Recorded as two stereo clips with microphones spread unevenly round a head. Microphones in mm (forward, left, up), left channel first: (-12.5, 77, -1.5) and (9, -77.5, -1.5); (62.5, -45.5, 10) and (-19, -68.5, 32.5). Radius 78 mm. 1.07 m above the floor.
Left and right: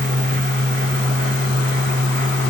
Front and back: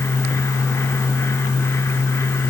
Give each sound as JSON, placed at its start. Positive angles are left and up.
{"t": 0.0, "sound": "a fan", "azimuth_deg": -50, "distance_m": 0.9}